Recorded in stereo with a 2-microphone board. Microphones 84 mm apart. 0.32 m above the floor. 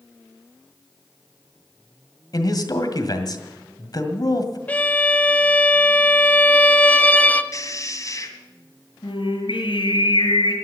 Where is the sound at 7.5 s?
45° left (ahead or behind), 2.5 m.